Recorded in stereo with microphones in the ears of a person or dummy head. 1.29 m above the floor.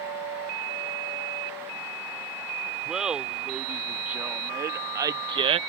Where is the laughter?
5° right (ahead or behind); by 5.6 s 30° right (ahead or behind).